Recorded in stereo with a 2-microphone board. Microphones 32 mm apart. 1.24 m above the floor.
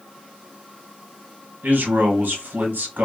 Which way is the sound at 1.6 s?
85° right.